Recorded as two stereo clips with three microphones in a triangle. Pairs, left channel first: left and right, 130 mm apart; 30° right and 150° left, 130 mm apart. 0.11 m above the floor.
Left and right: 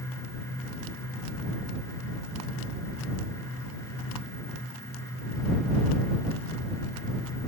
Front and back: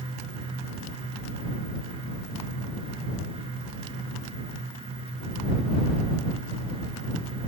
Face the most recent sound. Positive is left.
No sound to turn to.